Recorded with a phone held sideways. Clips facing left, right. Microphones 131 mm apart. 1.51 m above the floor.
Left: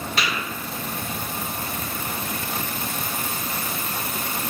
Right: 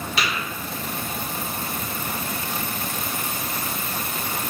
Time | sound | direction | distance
0.2 | tapping | 50° left (ahead or behind) | 1.5 m